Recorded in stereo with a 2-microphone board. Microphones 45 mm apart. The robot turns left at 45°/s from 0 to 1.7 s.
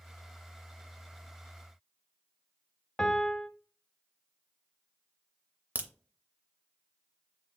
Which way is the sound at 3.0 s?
20° left (ahead or behind).